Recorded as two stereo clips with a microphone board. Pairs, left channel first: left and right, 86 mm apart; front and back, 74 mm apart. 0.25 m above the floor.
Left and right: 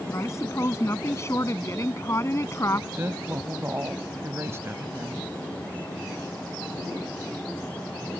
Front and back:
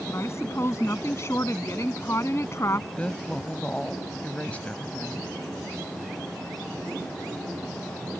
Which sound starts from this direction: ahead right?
A woman speaking, at 3.0 s.